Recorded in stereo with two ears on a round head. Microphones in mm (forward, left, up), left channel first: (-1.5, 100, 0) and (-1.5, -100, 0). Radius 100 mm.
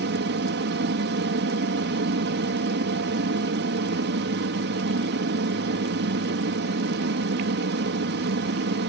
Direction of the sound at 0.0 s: 55° right (ahead or behind).